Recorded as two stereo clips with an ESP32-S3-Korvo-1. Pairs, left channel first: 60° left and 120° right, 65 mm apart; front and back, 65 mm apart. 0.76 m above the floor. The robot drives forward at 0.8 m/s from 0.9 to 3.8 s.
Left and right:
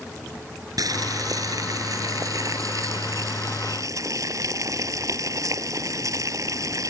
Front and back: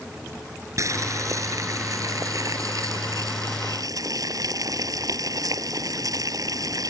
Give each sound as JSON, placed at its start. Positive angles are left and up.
{"t": 0.8, "sound": "boiling", "azimuth_deg": -140}